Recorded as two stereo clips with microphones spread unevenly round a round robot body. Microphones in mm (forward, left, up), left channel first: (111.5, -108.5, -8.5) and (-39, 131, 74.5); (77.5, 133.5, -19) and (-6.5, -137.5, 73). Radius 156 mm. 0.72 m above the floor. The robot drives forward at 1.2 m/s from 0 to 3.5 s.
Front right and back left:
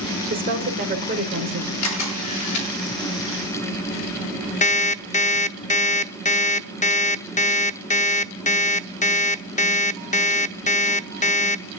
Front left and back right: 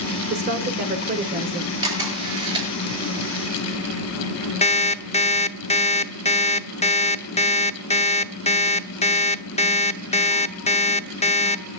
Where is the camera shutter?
30° right, 9.5 m; by 2.7 s 35° right, 8.5 m.